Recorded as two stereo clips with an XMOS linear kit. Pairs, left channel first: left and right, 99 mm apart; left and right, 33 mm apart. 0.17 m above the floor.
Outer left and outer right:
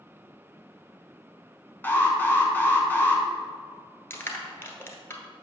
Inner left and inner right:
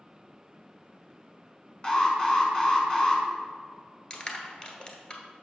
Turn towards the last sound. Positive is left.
turn(degrees=25)  # may be behind; listen again after turning